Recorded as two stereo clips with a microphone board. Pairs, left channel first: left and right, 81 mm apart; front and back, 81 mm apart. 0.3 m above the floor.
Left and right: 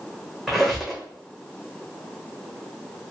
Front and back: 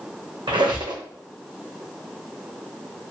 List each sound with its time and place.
0.5 s a squeak: straight behind, 0.9 m